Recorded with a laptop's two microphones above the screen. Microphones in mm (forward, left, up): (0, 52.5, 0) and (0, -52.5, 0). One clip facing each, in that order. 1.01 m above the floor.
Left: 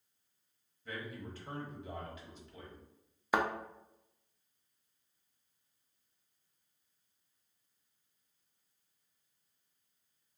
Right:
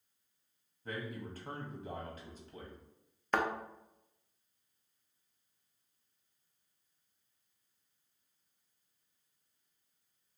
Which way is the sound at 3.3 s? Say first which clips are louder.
Left 1 dB; 10° left (ahead or behind).